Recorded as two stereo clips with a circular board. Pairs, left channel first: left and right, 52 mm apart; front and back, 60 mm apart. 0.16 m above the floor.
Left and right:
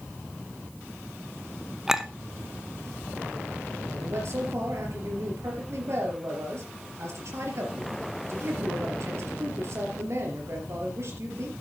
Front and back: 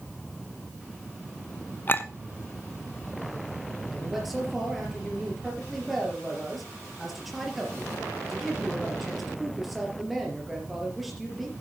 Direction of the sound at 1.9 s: 20° right.